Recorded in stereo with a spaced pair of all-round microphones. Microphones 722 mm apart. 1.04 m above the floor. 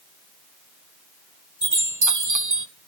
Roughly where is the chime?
Right.